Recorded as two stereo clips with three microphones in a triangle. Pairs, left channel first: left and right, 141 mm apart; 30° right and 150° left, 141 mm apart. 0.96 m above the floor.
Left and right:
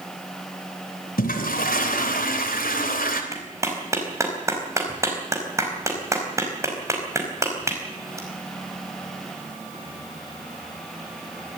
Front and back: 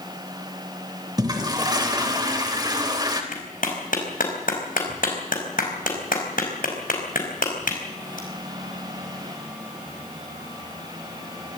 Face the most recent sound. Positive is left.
turn(degrees=-20)